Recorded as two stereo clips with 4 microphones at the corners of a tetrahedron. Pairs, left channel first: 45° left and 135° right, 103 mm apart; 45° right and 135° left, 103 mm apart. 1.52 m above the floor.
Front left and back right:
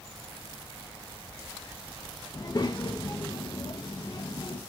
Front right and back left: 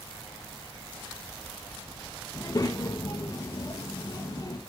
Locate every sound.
2.3 s a child speaking: 5° left, 1.1 m